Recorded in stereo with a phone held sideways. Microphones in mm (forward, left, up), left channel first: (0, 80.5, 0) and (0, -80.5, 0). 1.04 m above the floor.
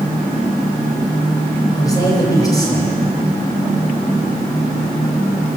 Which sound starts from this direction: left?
A man speaking, at 1.8 s.